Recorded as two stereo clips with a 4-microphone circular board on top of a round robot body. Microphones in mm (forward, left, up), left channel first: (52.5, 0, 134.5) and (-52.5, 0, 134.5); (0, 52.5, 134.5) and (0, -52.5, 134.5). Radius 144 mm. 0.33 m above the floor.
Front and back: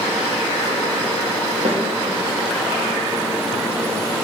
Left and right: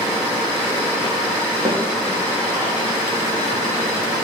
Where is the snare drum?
155° right, 3 m.